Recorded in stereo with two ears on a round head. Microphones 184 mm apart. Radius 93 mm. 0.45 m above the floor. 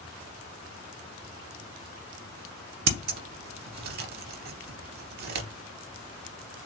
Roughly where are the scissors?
Right.